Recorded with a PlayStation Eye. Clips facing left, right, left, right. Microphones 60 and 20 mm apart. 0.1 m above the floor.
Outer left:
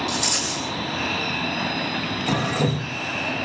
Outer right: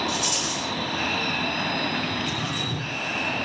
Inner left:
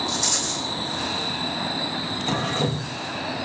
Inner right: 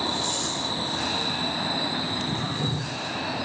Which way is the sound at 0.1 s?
70° left (ahead or behind).